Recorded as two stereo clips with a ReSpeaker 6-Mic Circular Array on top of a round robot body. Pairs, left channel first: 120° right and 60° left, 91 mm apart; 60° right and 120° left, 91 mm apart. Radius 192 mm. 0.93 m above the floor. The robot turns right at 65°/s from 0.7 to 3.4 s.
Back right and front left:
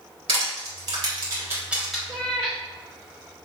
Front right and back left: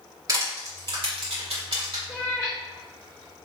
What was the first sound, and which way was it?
Crushing, 70° left.